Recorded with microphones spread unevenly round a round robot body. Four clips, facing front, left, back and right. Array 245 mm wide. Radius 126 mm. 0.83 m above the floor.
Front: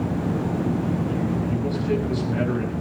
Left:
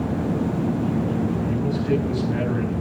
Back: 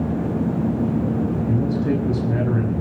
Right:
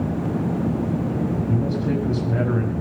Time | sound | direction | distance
1.5 | a man speaking | 150° right | 6 m